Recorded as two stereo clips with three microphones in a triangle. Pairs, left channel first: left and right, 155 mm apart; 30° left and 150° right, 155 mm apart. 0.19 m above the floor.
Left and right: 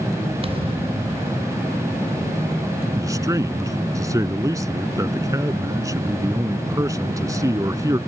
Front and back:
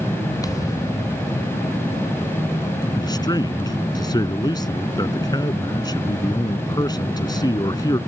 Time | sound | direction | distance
0.4 | a thud | 35° right | ?
3.0 | a man speaking | 25° right | ?